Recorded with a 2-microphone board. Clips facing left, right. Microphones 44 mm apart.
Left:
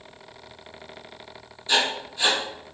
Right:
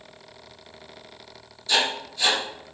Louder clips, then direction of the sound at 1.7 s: Even; 25° left (ahead or behind).